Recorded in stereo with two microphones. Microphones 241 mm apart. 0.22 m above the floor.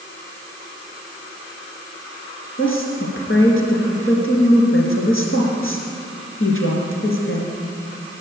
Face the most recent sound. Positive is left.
turn(degrees=60)  # may be behind; listen again after turning